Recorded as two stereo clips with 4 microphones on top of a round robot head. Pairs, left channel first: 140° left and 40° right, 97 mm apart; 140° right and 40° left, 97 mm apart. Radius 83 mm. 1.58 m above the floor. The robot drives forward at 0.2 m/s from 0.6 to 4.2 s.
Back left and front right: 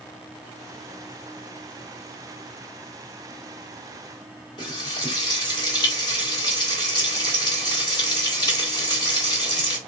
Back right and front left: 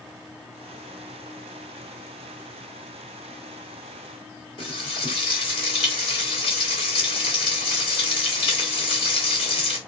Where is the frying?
170° right, 1.6 m.